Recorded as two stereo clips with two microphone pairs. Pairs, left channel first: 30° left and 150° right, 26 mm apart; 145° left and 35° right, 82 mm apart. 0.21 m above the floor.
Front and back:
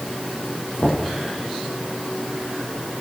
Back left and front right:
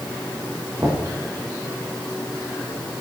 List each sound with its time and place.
0.8 s knocking: 15° left, 4.5 m